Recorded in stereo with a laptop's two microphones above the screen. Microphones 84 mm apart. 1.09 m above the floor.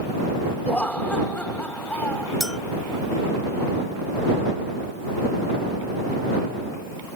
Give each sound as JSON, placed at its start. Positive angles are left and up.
{"t": 0.7, "sound": "laughter", "side_deg": 15}
{"t": 2.4, "sound": "a clink", "side_deg": 0}